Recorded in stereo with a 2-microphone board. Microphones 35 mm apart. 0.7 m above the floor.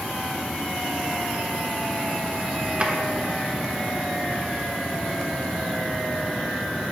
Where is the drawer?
40° right (ahead or behind), 1.0 m.